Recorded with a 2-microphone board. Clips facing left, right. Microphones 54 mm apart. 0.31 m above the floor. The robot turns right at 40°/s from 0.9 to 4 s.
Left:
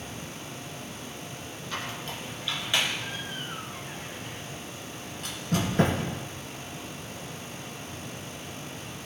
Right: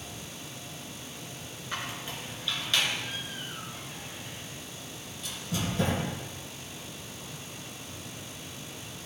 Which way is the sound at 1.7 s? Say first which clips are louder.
Left 1 dB; 25° right (ahead or behind).